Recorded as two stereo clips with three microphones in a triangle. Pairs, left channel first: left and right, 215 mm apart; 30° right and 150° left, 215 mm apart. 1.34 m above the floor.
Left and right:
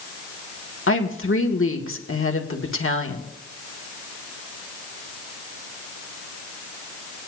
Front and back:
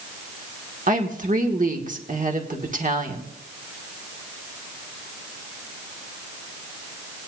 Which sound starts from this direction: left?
A woman speaking, at 0.9 s.